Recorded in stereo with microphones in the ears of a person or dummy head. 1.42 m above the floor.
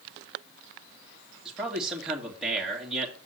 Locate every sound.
1.4 s a man speaking: centre (ahead or behind), 2 m